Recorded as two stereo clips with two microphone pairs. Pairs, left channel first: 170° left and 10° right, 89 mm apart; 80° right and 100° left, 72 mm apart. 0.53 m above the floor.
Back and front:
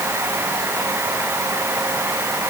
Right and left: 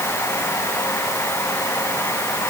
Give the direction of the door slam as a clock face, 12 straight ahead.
No door slam in this recording.